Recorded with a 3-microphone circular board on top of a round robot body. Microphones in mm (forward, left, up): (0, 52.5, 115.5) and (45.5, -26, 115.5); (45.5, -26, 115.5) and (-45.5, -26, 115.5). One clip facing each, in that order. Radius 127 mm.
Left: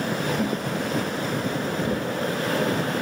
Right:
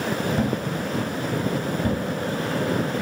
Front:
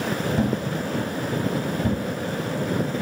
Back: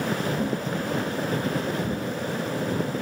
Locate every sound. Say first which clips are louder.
0.4 s a thud: right 1 dB, front 3 dB; 10° right, 2.5 m